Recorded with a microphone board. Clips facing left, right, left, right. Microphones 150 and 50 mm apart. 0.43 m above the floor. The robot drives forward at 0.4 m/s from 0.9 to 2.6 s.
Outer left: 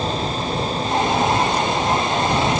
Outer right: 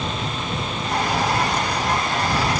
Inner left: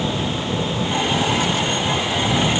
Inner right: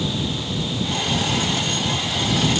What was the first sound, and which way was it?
Only background noise.